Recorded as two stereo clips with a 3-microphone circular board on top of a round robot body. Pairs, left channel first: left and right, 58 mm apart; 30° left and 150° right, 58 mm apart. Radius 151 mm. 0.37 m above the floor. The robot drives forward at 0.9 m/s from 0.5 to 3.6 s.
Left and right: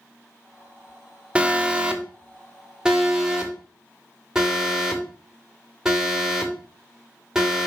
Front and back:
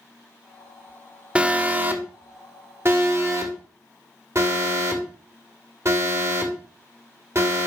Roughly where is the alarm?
Behind right.